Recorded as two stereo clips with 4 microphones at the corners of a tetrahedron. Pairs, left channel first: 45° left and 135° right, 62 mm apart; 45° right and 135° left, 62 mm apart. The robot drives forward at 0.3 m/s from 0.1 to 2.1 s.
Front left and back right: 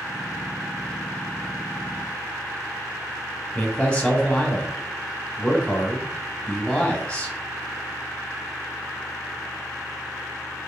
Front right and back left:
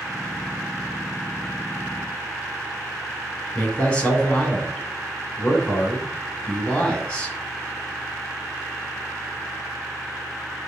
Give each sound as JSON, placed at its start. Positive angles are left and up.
{"t": 3.5, "sound": "a man speaking", "azimuth_deg": 0, "distance_m": 1.1}